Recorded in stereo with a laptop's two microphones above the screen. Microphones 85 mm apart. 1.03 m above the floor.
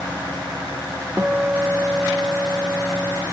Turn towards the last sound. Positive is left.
turn(degrees=-25)  # may be behind; listen again after turning